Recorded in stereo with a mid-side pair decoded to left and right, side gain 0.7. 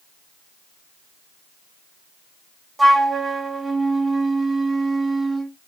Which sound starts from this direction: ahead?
A flute, at 2.8 s.